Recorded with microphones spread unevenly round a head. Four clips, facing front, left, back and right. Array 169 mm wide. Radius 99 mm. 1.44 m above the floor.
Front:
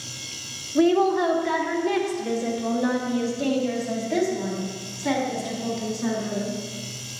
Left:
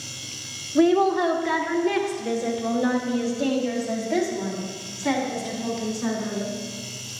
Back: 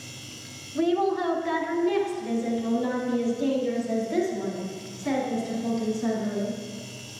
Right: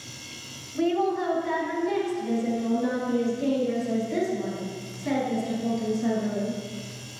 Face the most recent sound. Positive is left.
turn(degrees=45)